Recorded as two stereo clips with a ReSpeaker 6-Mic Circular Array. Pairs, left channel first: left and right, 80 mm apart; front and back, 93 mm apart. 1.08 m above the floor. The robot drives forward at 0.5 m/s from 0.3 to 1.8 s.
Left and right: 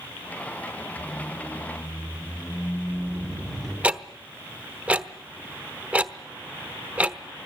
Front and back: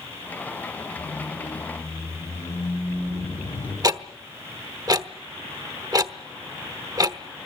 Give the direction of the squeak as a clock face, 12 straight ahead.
12 o'clock.